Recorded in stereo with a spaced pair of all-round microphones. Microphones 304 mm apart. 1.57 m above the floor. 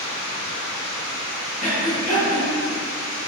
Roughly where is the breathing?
Left.